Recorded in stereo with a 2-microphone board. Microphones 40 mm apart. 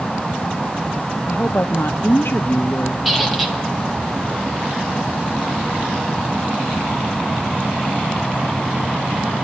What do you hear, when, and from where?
1.3 s a woman speaking: 65° left (ahead or behind), 0.8 m
3.0 s a squeak: 5° right (ahead or behind), 1.5 m